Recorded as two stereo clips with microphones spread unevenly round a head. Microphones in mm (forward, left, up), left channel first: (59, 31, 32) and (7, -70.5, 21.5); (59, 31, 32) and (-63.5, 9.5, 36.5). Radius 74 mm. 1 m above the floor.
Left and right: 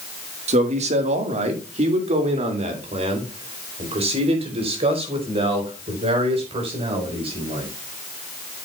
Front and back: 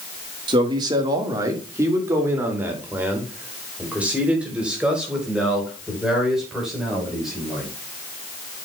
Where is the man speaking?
115° right, 1.8 m; by 7.7 s 80° right, 6 m.